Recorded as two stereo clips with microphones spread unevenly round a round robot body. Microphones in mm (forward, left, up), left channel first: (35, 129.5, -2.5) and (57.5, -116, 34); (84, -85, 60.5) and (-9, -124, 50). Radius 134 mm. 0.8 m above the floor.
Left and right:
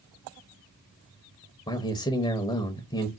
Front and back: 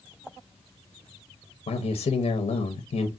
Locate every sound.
1.7 s a man speaking: 30° left, 0.5 m